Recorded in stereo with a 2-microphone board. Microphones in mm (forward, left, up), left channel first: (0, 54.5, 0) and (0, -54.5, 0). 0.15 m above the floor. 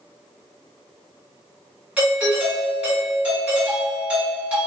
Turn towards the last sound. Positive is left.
turn(degrees=-10)  # may be behind; listen again after turning